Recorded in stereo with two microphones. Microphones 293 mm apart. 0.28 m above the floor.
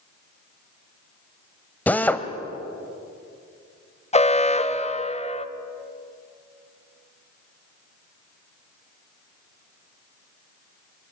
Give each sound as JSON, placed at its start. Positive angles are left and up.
{"t": 1.9, "sound": "a drill", "side_deg": 5, "distance_m": 1.5}
{"t": 4.1, "sound": "an alarm", "side_deg": 20, "distance_m": 1.0}